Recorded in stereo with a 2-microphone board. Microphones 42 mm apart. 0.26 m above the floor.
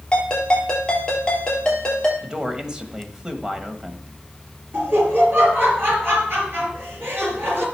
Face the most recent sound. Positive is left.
turn(degrees=-65)  # may be behind; listen again after turning